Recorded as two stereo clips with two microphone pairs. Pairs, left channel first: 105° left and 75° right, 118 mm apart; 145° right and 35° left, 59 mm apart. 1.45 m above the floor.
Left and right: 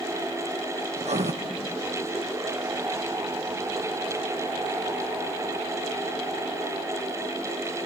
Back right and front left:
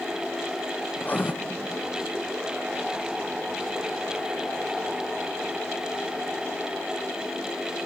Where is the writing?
85° right, 0.9 m.